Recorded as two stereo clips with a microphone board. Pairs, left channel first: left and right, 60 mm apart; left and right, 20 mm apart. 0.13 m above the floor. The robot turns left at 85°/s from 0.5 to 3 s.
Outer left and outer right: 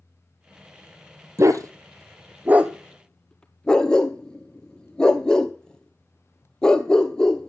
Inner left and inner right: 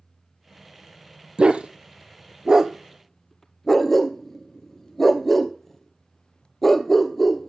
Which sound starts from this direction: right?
A dog barking, at 1.4 s.